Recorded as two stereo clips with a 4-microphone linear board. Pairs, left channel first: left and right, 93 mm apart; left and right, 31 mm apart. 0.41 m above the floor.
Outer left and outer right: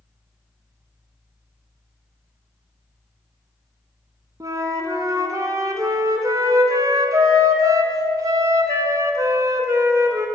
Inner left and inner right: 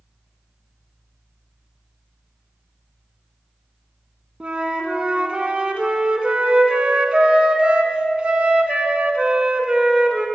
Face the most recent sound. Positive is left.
turn(degrees=-40)  # may be behind; listen again after turning